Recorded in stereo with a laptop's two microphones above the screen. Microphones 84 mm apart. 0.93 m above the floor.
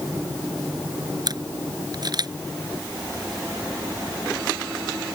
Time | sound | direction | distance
1.3 | a camera shutter | 55° right (ahead or behind) | ?